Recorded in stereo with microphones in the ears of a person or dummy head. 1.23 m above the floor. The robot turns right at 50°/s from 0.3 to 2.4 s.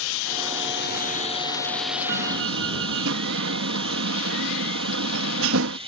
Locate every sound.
0.0 s running water: 105° left; by 5.9 s 150° right
2.1 s a door slam: 65° right (ahead or behind); by 5.8 s 80° right